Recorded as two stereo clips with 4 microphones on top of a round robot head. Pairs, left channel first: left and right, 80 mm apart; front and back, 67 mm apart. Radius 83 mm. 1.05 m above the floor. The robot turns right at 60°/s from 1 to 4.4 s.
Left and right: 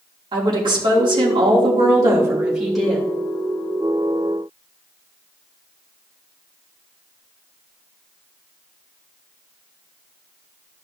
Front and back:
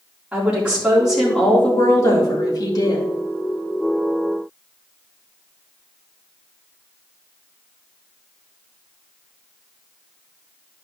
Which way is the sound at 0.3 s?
105° right.